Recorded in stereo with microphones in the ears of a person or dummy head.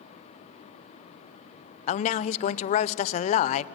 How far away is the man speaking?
About 0.5 m.